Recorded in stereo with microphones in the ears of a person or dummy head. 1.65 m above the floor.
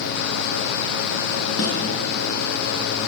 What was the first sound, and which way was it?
A snare drum, 80° left.